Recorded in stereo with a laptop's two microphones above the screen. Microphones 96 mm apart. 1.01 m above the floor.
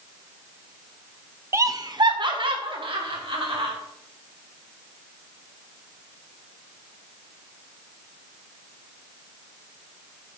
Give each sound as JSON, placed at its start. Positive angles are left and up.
{"t": 1.5, "sound": "laughter", "side_deg": -25, "distance_m": 0.6}